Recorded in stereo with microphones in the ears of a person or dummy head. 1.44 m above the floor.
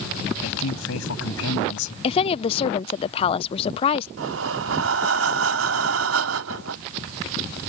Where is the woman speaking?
35° left (ahead or behind).